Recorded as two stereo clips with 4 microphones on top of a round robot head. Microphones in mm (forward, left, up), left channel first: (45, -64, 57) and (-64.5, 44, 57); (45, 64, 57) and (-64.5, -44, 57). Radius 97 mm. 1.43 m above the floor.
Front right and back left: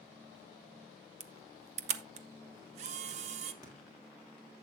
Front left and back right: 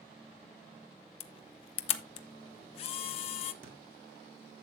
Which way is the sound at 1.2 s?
90° left.